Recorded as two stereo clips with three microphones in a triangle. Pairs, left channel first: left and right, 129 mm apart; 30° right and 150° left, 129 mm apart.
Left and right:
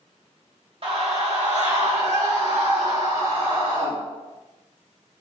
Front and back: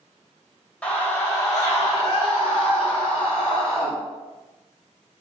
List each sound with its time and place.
0.8 s a scream: 110° right, 1.3 m; by 3.9 s 80° right, 5 m